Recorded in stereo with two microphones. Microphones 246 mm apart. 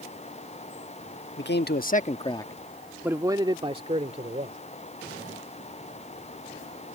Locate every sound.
1.4 s a man speaking: 45° left (ahead or behind); by 4.6 s 30° right (ahead or behind)